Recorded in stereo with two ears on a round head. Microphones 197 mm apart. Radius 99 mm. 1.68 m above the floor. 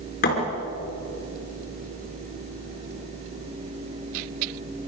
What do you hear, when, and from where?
0.2 s a thud: 45° left (ahead or behind), 5.5 m